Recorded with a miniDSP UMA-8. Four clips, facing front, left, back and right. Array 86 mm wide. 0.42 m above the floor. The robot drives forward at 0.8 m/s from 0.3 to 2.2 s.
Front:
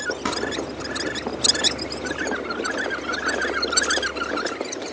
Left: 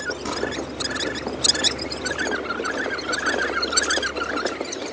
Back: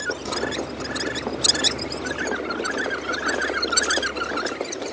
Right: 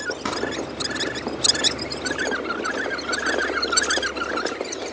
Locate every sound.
0.2 s crumpling: 30° right, 5 m